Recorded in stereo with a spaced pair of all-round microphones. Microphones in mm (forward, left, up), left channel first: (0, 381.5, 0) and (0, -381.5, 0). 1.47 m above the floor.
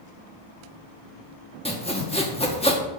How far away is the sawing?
About 1.3 m.